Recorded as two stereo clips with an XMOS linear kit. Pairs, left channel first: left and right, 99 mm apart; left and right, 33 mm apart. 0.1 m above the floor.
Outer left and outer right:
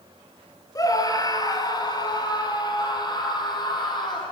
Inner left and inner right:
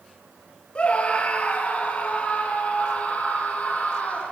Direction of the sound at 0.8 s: 35° left (ahead or behind).